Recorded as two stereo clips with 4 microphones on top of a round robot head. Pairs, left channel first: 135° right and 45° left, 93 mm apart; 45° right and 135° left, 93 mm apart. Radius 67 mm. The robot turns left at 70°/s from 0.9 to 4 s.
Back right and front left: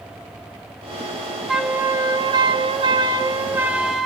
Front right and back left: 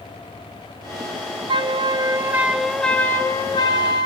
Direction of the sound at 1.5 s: 130° left.